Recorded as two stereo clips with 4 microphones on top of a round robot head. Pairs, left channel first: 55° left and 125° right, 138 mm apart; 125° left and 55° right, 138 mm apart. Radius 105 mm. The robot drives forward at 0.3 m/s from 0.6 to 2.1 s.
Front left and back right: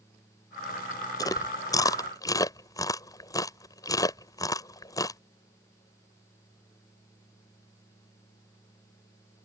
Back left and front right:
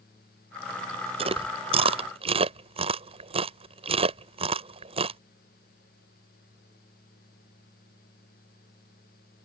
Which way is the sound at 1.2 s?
10° right.